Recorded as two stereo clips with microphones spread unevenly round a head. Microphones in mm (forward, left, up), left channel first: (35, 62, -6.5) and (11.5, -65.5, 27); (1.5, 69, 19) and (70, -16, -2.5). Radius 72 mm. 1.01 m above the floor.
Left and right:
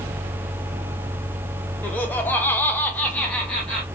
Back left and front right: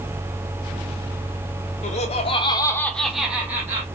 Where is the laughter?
145° left, 0.9 m; by 3.8 s 5° left, 1.2 m.